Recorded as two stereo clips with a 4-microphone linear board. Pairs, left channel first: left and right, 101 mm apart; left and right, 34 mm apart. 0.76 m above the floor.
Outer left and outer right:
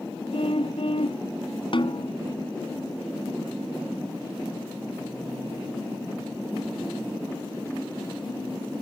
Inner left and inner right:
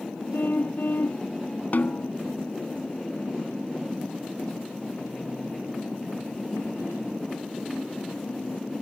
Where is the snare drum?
55° left (ahead or behind).